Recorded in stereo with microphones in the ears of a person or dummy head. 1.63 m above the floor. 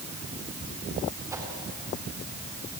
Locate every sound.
1.3 s a whoosh: 15° right (ahead or behind), 3.5 m